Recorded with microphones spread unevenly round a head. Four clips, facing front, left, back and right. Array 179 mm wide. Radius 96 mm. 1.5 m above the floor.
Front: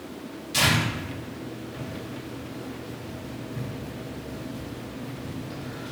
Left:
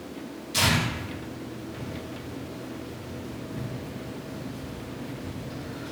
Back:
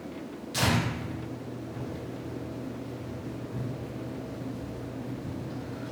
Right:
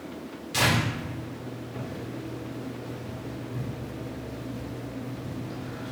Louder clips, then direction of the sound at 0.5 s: Right 1 dB, front 3 dB; 90° right.